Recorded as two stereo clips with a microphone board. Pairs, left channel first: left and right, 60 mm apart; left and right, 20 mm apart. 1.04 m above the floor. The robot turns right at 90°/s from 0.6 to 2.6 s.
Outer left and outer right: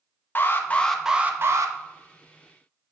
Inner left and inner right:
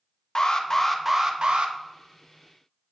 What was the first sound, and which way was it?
An alarm, 145° left.